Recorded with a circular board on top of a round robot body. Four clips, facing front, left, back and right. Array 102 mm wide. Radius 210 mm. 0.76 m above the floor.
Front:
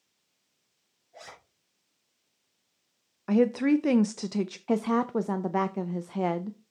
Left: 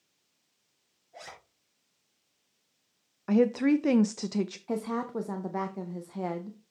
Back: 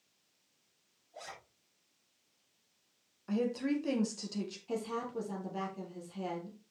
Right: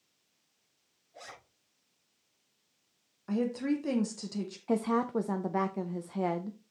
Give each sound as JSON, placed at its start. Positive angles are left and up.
{"t": 1.1, "sound": "a zipper", "azimuth_deg": 55, "distance_m": 3.5}
{"t": 3.3, "sound": "a woman speaking", "azimuth_deg": 35, "distance_m": 0.6}
{"t": 4.7, "sound": "a woman speaking", "azimuth_deg": -10, "distance_m": 0.6}